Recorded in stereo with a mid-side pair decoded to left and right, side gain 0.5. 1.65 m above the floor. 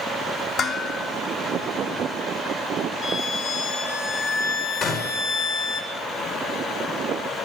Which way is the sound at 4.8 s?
65° left.